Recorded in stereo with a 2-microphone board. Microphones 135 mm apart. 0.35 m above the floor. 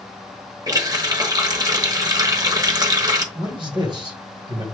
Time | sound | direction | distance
0.7 | a running tap | 30° right (ahead or behind) | 0.9 m
3.4 | a man speaking | 35° right (ahead or behind) | 1.7 m